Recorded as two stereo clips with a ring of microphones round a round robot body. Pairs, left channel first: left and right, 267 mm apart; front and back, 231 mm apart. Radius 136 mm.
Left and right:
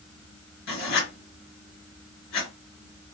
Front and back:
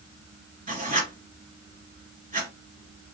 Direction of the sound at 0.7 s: 125° left.